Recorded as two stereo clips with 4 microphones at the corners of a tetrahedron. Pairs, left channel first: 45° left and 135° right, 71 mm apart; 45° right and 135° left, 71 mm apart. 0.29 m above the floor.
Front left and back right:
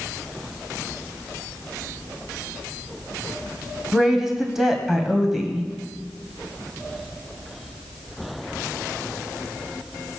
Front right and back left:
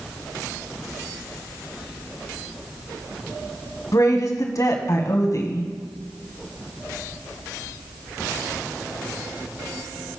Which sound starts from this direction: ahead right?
A woman speaking, at 3.9 s.